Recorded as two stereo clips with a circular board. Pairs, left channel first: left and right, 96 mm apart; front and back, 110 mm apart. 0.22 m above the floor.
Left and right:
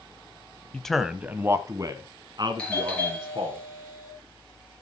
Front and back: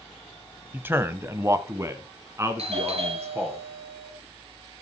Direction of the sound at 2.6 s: 170° left.